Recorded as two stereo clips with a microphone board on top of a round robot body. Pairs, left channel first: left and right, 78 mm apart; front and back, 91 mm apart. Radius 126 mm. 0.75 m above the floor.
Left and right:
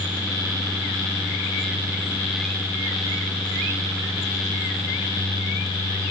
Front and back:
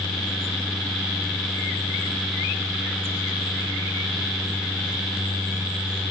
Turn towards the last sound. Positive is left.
No sound to turn to.